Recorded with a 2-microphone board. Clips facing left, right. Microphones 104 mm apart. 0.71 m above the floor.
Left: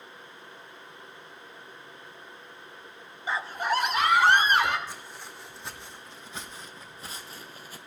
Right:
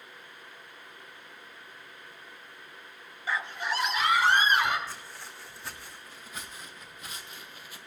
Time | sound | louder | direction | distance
3.3 | a scream | left 4 dB | 20° left (ahead or behind) | 0.7 m
4.9 | footsteps | left 1 dB | 20° left (ahead or behind) | 2.5 m